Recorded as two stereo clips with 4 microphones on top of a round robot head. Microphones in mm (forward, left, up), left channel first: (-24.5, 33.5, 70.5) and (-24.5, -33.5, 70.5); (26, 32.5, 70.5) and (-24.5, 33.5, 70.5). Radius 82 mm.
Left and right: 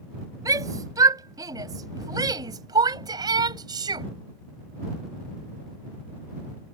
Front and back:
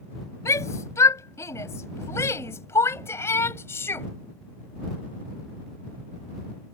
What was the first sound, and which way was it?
A shout, 45° right.